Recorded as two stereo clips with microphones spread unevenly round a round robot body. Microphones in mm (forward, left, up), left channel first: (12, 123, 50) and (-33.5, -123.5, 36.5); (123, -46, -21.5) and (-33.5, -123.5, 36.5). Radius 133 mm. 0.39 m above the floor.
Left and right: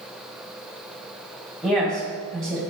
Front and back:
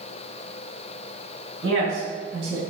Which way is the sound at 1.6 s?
170° left.